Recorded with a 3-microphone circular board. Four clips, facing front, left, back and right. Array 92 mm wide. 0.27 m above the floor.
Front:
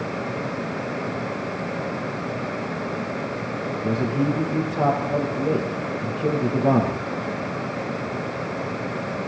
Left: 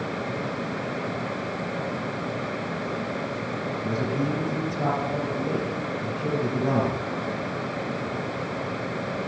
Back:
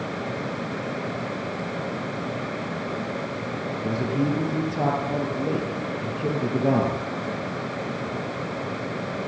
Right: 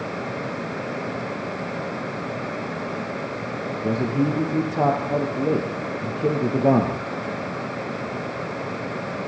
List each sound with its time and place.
3.8 s a man speaking: 90° right, 5 m